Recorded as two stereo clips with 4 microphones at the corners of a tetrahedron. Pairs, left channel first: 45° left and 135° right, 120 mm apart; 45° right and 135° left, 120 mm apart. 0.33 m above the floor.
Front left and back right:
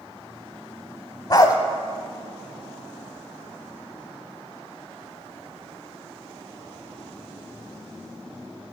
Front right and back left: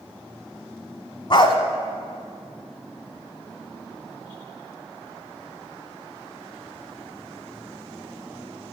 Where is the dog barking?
5° right, 0.8 m.